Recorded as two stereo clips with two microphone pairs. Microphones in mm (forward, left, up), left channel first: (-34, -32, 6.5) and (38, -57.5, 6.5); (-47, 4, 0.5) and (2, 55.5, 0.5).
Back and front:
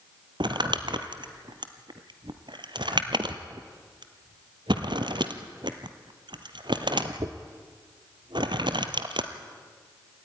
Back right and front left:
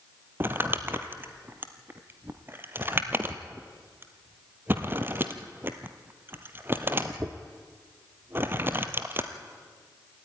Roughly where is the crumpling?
Ahead.